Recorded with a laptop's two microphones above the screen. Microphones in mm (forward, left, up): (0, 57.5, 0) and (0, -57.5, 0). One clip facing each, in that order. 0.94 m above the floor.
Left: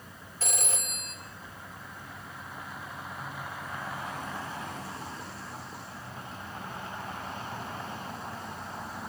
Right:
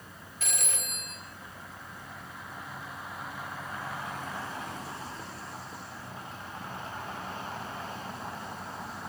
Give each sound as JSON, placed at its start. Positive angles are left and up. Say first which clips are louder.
{"t": 0.4, "sound": "a phone ringing", "louder": "left 3 dB", "side_deg": 35, "distance_m": 1.7}